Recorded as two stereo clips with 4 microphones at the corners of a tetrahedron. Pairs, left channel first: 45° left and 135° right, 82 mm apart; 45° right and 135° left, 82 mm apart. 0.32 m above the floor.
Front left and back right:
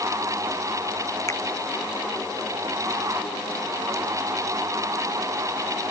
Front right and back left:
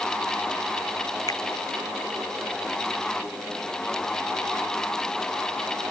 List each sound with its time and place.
1.3 s a finger snap: 5° right